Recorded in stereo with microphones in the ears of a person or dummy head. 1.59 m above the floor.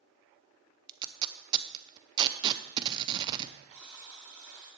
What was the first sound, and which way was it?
Tape being pulled, 25° right (ahead or behind).